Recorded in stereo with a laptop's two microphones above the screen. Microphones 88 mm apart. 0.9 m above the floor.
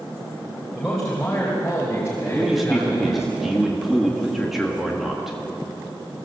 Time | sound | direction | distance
0.8 | a man speaking | 5° left (ahead or behind) | 3.5 m
2.2 | a man speaking | 5° right (ahead or behind) | 1.6 m